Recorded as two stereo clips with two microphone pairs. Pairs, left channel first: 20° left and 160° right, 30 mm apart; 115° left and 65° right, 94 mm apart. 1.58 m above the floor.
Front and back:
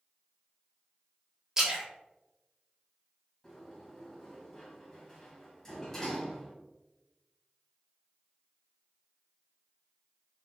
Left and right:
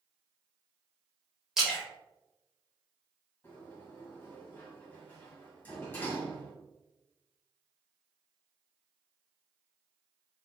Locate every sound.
1.6 s a splash: 145° right, 1.3 m
3.4 s a sliding door: 75° left, 1.6 m